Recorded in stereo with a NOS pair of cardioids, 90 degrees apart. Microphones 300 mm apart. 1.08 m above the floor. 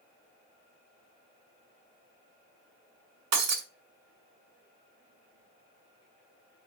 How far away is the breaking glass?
About 2 m.